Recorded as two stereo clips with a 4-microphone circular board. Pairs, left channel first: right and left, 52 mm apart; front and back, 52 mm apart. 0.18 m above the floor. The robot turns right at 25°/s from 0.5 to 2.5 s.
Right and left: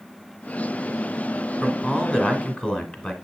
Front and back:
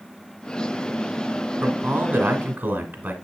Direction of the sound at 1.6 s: 170° right.